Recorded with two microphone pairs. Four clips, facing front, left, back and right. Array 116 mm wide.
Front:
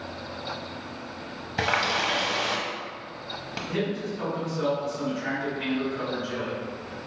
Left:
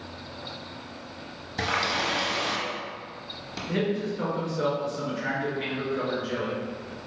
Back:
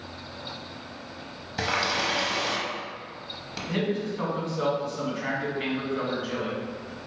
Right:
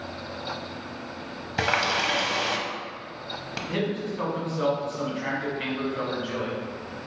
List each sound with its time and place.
1.6 s a running tap: 70° right, 0.7 m
3.7 s a man speaking: 130° right, 1.6 m